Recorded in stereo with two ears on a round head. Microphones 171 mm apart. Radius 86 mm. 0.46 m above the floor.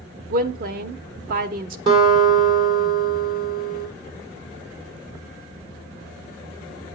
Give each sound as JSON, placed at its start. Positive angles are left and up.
{"t": 0.3, "sound": "a woman speaking", "side_deg": -50, "distance_m": 1.2}
{"t": 1.9, "sound": "a guitar", "side_deg": -25, "distance_m": 4.5}